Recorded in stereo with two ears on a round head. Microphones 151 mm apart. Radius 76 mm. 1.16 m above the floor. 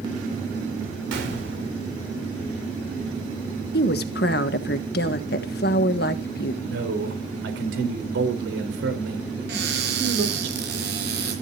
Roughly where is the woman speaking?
Left.